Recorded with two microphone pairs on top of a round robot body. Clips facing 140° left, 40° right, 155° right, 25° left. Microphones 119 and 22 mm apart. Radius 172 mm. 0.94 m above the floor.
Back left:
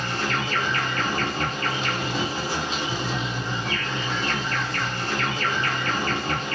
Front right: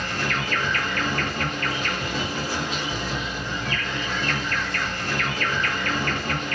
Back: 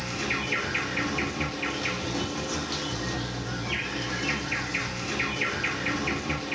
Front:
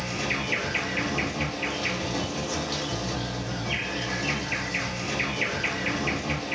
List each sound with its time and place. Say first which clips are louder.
0.0 s an insect: back left 1 dB, front 1 dB; 110° left, 1.6 m